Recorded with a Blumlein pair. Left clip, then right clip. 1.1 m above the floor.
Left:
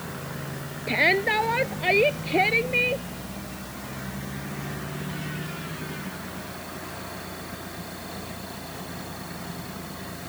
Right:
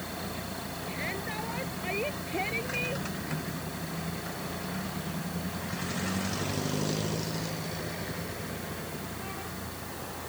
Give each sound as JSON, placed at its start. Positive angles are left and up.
{"t": 0.9, "sound": "a shout", "azimuth_deg": 55}